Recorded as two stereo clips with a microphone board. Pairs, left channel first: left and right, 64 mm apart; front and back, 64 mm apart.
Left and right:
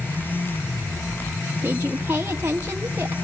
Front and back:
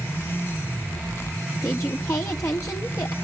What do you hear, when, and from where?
1.6 s a woman speaking: 35° right, 1.2 m